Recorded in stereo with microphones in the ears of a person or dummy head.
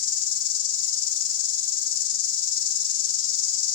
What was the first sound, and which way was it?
An insect, 45° left (ahead or behind).